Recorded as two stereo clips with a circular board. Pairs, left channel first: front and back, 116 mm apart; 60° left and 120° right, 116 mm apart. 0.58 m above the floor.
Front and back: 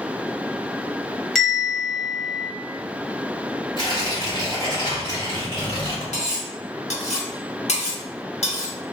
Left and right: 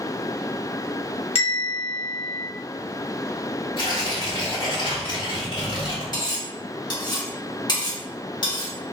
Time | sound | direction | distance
1.4 | a bell | 90° left | 0.8 m
3.8 | tearing paper | 35° left | 1.4 m
6.1 | cutlery clinking | 10° left | 0.8 m